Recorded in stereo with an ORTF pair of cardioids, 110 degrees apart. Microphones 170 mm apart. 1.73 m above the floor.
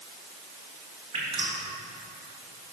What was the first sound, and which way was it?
Dripping, 35° right.